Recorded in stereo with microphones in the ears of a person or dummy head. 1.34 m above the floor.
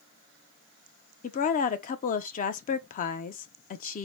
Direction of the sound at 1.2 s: 40° left (ahead or behind).